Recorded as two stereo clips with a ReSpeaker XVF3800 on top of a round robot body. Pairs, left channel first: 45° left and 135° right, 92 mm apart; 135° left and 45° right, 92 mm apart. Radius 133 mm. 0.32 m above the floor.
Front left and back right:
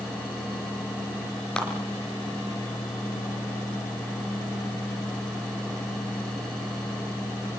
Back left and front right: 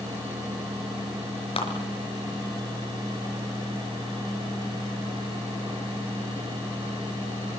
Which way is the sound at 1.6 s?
125° left.